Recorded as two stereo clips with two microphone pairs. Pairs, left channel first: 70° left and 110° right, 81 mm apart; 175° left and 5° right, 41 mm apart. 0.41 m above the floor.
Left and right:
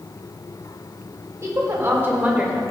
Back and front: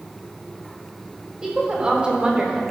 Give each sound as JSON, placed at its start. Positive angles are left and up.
{"t": 1.4, "sound": "a woman speaking", "azimuth_deg": -70, "distance_m": 2.5}